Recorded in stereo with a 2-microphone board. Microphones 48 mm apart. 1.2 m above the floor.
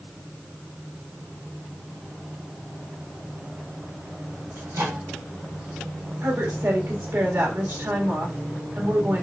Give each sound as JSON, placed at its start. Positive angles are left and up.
{"t": 4.6, "sound": "a microwave", "side_deg": -70, "distance_m": 3.0}
{"t": 6.2, "sound": "a woman speaking", "side_deg": -60, "distance_m": 1.8}